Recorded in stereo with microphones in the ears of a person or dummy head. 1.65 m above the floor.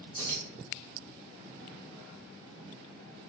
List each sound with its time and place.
0.2 s keys jangling: 10° right (ahead or behind), 1.3 m